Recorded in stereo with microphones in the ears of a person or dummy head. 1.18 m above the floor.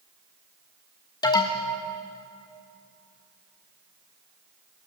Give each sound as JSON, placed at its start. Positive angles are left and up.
{"t": 1.2, "sound": "an alarm", "side_deg": 20, "distance_m": 0.9}